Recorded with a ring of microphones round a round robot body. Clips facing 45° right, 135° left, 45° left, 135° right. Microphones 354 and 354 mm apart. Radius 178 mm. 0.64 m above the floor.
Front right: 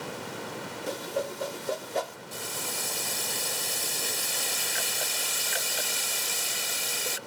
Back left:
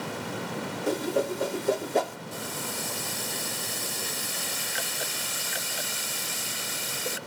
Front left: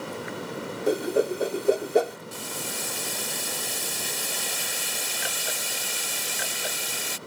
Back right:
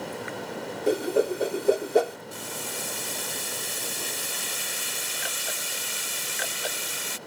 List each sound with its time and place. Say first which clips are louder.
0.9 s a whoosh: back left 6 dB, even; 135° left
2.3 s boiling: back left 1 dB, front left 1 dB; 5° left